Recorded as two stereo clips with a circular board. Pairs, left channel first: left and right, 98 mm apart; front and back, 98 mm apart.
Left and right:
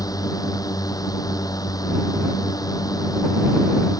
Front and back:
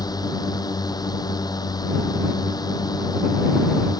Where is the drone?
45° left.